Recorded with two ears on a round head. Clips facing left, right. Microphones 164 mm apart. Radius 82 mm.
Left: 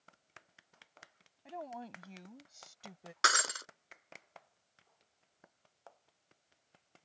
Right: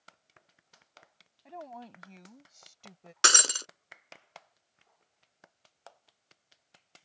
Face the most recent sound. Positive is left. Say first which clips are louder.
# right 3 dB
turn(degrees=-35)  # may be behind; listen again after turning